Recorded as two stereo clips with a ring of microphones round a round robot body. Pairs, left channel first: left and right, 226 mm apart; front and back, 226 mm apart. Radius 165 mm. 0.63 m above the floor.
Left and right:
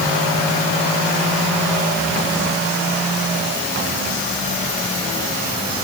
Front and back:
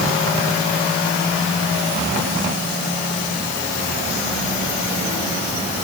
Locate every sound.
Only background noise.